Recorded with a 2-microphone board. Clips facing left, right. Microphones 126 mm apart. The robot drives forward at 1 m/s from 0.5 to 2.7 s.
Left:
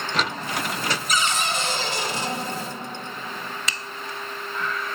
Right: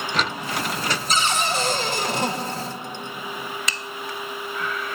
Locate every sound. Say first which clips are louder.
1.1 s a cupboard door: right 3 dB; 30° right (ahead or behind), 2.0 m; by 2.3 s 65° right (ahead or behind), 1.2 m